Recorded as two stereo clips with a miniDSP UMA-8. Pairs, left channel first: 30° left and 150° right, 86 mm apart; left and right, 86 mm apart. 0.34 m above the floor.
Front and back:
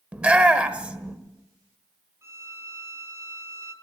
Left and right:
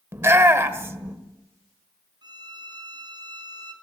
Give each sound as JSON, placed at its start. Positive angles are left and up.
{"t": 0.1, "sound": "a shout", "azimuth_deg": -85, "distance_m": 1.5}
{"t": 2.2, "sound": "a violin", "azimuth_deg": -100, "distance_m": 3.0}